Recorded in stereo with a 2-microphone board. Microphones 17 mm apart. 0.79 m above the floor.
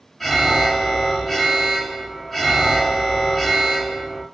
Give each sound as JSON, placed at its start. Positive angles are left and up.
{"t": 0.2, "sound": "an alarm", "side_deg": 5, "distance_m": 1.9}